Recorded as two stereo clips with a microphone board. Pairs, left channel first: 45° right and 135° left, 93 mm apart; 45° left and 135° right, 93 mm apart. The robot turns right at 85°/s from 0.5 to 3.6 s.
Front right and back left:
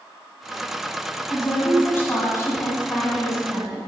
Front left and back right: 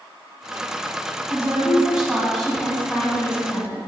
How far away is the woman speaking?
About 1.6 m.